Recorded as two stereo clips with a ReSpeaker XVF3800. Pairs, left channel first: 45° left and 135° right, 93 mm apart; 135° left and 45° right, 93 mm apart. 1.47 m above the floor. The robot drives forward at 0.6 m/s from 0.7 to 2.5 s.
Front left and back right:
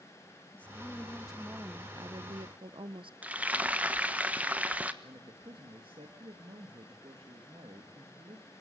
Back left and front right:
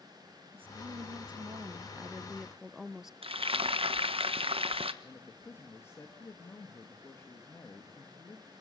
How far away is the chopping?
I don't hear chopping.